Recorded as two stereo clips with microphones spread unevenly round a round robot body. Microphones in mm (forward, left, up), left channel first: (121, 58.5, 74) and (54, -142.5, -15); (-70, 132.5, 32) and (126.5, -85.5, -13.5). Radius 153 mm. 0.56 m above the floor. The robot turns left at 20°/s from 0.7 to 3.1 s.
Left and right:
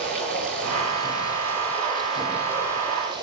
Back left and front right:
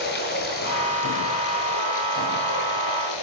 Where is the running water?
170° right, 8 m; by 3.2 s 145° left, 8 m.